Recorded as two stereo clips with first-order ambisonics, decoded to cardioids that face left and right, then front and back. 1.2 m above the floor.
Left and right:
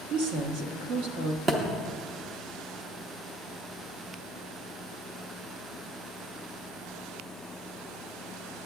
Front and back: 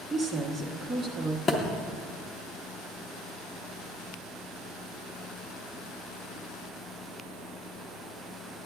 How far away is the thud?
About 0.5 m.